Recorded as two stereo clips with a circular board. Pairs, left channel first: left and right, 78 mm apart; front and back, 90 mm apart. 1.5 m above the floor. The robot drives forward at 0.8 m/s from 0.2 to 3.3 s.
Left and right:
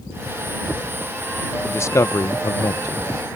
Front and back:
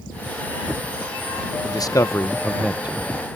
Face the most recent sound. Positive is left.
turn(degrees=140)